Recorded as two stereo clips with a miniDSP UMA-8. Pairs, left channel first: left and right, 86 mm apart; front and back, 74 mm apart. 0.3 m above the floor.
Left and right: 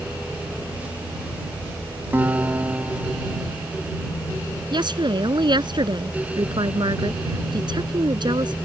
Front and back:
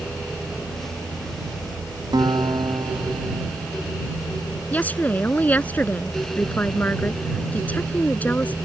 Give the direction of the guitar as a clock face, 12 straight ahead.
5 o'clock.